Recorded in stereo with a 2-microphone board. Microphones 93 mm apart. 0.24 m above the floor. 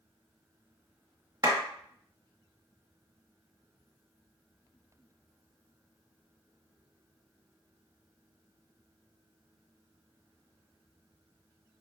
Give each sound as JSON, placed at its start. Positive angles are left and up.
{"t": 1.4, "sound": "a clap", "side_deg": -45, "distance_m": 1.1}